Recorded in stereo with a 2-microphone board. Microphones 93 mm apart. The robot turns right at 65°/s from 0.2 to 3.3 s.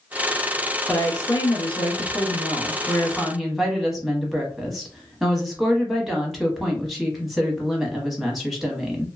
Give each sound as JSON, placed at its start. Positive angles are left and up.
{"t": 0.9, "sound": "a woman speaking", "azimuth_deg": 25, "distance_m": 0.9}